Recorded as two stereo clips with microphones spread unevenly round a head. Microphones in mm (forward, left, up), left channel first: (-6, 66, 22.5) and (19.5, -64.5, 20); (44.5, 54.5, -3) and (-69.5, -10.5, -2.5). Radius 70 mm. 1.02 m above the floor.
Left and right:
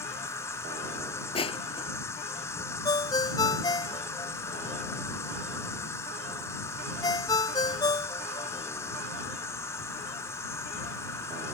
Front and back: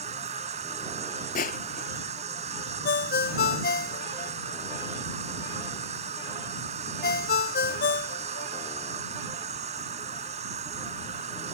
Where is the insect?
170° left.